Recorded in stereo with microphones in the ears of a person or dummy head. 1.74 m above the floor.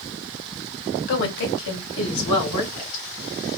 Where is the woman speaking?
70° left (ahead or behind), 1.9 m; by 3.0 s 75° left (ahead or behind), 3.5 m.